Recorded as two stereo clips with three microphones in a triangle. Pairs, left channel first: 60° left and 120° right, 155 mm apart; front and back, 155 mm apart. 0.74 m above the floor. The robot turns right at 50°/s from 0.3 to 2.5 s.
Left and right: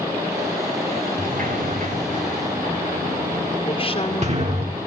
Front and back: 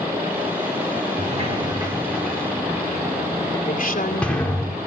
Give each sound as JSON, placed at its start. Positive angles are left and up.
{"t": 1.2, "sound": "a sliding door", "azimuth_deg": -150, "distance_m": 2.5}
{"t": 3.7, "sound": "a woman speaking", "azimuth_deg": 10, "distance_m": 2.0}